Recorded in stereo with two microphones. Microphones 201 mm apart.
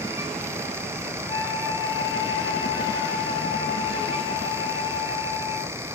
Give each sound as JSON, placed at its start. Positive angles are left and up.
{"t": 1.3, "sound": "a flute", "side_deg": 20, "distance_m": 1.0}